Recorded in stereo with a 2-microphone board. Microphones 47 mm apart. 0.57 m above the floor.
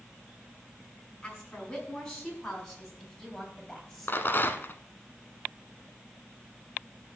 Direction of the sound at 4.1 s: 50° left (ahead or behind).